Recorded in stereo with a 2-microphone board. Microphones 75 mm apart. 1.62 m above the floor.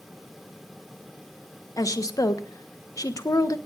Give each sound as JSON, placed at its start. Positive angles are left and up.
{"t": 1.8, "sound": "a woman speaking", "side_deg": 50, "distance_m": 1.1}